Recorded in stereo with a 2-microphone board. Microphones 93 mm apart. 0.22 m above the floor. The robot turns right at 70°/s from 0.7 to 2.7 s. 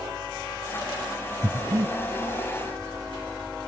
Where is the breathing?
30° right (ahead or behind), 1.2 m; by 1.9 s 35° right (ahead or behind), 1.2 m.